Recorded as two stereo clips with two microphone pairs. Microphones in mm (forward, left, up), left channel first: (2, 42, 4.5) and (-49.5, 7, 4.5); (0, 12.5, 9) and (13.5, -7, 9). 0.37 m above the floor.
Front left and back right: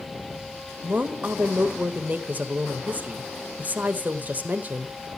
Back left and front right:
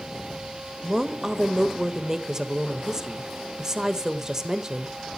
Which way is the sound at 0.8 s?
110° right.